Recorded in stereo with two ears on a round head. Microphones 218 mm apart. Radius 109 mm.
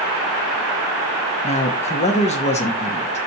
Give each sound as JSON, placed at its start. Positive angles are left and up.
{"t": 1.4, "sound": "a man speaking", "side_deg": 30, "distance_m": 1.0}